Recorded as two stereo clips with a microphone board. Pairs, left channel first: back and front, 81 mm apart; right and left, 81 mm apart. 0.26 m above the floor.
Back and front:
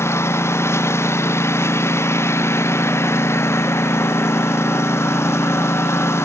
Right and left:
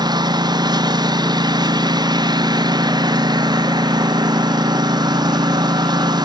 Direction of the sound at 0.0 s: 120° left.